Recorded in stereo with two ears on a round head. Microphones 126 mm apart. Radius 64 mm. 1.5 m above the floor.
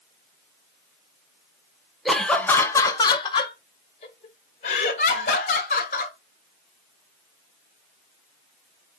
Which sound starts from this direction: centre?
Laughter, at 2.0 s.